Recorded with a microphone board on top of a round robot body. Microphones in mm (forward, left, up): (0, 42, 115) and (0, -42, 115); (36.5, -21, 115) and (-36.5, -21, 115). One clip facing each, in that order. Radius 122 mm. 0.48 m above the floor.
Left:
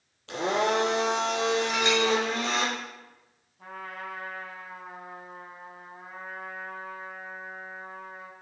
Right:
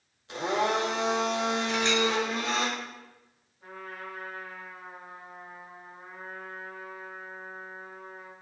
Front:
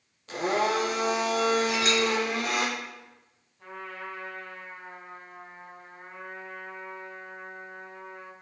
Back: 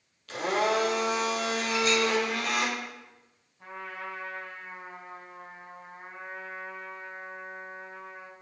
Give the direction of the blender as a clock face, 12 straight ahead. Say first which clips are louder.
Left 2 dB, front 1 dB; 10 o'clock.